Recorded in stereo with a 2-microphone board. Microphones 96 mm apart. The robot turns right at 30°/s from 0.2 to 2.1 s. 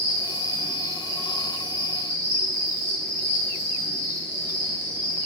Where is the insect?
20° left, 0.9 m; by 5.3 s 80° left, 0.9 m.